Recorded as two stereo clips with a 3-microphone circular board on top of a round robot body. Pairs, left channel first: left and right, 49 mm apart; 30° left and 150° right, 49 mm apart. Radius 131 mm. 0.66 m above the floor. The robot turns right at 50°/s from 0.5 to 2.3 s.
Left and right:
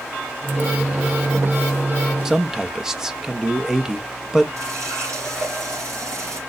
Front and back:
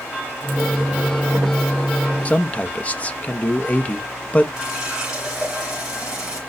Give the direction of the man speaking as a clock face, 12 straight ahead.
1 o'clock.